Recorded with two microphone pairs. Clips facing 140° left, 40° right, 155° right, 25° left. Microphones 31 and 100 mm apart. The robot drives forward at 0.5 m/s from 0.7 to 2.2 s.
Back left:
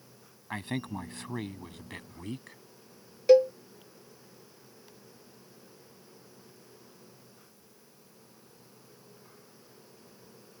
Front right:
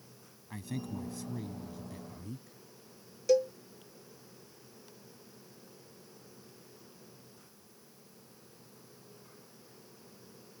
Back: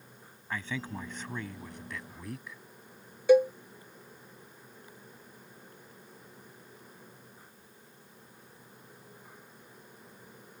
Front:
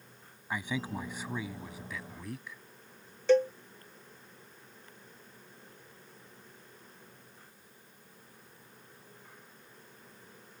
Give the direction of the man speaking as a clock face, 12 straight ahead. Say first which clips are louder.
Back left 5 dB, front 2 dB; 9 o'clock.